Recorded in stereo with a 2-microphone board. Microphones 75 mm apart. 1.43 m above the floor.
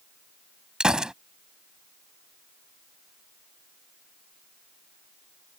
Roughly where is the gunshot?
Centre.